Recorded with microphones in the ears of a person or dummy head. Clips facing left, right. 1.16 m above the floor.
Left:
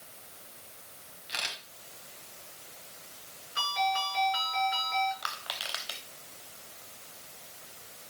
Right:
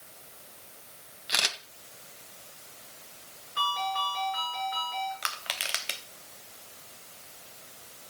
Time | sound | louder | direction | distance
1.3 | a camera shutter | right 6 dB | 65° right (ahead or behind) | 1.5 m
3.6 | a ringtone | left 2 dB | 25° left (ahead or behind) | 9 m
5.2 | crushing | right 1 dB | 35° right (ahead or behind) | 1.2 m